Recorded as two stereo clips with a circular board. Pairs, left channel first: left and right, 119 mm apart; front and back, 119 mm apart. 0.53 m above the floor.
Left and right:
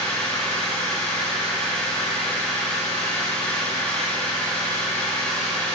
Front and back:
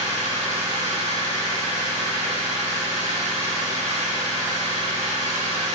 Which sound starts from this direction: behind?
An engine running, at 0.0 s.